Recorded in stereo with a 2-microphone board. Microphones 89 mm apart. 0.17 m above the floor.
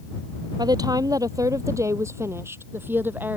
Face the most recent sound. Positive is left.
turn(degrees=-20)  # may be behind; listen again after turning